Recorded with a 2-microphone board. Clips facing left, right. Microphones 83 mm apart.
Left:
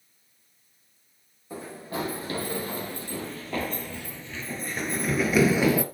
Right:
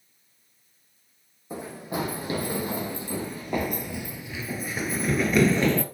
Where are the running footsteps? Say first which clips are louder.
Right 2 dB; 20° right (ahead or behind), 3 m; by 5.8 s 10° left (ahead or behind), 1.2 m.